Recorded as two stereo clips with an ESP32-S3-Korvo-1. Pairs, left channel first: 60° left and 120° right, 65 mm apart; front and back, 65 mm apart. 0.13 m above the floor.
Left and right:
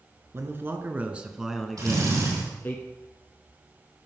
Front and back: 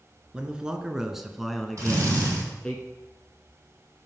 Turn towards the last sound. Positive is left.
turn(degrees=-140)